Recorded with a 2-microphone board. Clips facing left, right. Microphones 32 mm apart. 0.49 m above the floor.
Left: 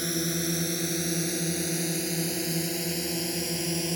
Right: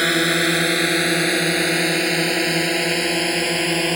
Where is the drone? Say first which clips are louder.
Right 13 dB; 60° right (ahead or behind); by 4.0 s 55° right (ahead or behind).